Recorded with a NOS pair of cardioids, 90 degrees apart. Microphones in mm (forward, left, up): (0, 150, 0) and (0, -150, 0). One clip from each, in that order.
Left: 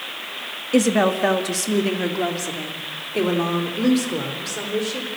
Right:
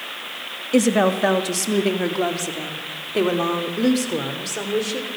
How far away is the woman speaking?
About 2 m.